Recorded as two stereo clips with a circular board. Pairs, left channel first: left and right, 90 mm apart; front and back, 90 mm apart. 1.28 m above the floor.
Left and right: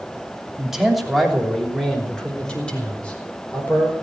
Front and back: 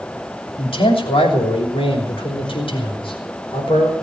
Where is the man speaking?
5° right, 3 m; by 3.9 s 20° left, 5 m.